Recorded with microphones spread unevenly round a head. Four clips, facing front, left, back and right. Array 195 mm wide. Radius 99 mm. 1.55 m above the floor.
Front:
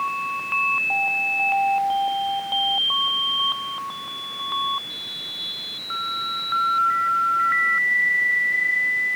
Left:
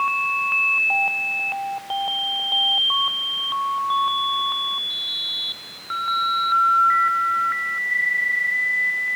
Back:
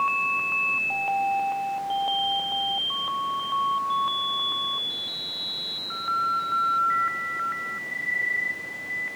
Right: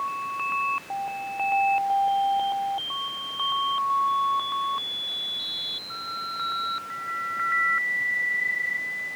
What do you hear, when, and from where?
Only background noise.